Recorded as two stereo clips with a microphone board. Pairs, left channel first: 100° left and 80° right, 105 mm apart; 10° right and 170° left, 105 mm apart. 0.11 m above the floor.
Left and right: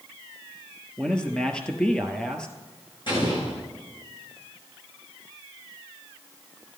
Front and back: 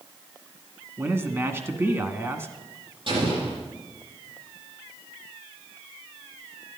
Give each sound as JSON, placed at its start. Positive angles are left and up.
{"t": 1.0, "sound": "a man speaking", "azimuth_deg": 165, "distance_m": 1.1}
{"t": 3.1, "sound": "an explosion", "azimuth_deg": 135, "distance_m": 4.5}